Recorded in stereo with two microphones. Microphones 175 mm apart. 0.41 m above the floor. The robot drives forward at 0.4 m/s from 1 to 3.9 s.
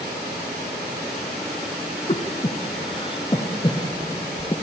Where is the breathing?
40° left (ahead or behind), 1.1 m; by 4.5 s 25° left (ahead or behind), 1.7 m.